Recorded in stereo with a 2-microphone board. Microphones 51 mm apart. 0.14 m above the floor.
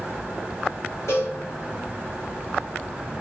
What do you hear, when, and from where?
1.1 s a cowbell: 80° left, 5 m